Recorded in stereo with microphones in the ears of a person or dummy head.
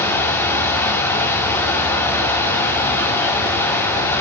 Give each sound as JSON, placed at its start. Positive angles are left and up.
{"t": 0.0, "sound": "a machine running", "side_deg": 10, "distance_m": 4.0}